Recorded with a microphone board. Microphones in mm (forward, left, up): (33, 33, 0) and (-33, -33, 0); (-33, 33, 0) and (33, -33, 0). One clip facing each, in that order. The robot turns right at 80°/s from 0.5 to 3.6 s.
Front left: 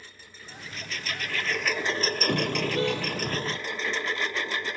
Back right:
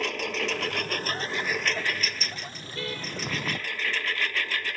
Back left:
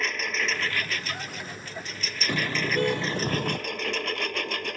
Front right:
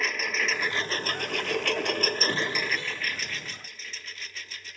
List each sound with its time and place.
0.0 s a lawn mower: 135° right; by 4.8 s 115° left
2.3 s a car horn: 60° left; by 3.6 s 165° left